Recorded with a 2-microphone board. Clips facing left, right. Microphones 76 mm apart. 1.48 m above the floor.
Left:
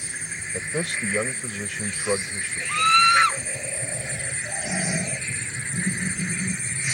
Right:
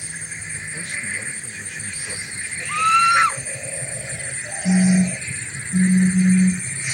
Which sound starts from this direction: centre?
A scream, at 2.7 s.